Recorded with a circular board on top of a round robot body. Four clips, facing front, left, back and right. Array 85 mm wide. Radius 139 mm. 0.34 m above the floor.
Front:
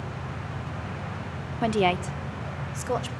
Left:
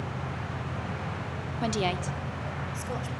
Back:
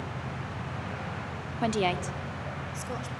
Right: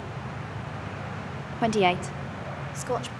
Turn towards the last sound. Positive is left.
turn(degrees=-40)